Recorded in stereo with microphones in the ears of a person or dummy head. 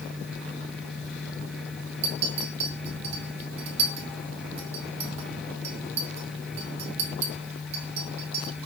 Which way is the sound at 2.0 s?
35° right (ahead or behind).